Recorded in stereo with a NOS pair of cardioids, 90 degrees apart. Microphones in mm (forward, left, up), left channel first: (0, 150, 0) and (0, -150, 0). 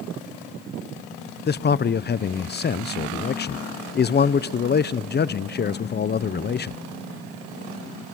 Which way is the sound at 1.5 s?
35° left.